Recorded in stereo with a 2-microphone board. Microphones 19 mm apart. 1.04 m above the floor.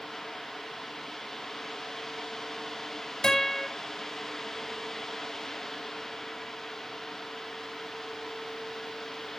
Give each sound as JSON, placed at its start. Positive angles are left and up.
{"t": 3.2, "sound": "a guitar", "side_deg": 50, "distance_m": 5.0}